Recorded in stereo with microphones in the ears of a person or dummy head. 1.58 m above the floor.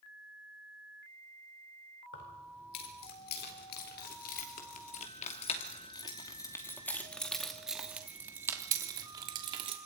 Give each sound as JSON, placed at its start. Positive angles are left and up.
{"t": 2.1, "sound": "keys jangling", "side_deg": 65, "distance_m": 4.5}